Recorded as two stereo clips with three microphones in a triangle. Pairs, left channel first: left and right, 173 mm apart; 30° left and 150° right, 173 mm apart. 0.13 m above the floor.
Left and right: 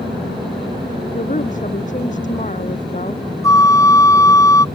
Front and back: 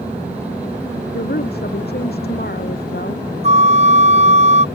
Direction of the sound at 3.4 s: 165° left.